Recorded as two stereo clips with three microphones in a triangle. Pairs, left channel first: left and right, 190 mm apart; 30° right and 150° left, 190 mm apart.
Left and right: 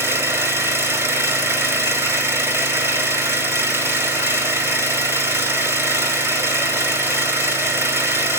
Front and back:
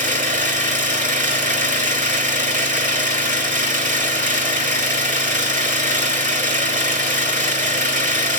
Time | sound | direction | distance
0.0 | an engine running | 165° right | 1.5 m